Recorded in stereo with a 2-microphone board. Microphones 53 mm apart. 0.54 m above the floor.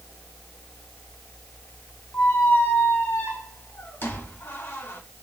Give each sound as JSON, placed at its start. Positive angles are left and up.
{"t": 2.1, "sound": "a squeak", "side_deg": 45, "distance_m": 2.0}